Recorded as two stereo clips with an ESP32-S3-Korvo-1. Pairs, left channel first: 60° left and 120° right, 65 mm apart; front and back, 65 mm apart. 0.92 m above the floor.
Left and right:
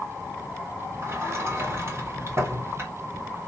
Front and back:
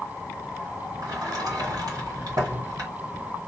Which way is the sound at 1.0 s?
165° right.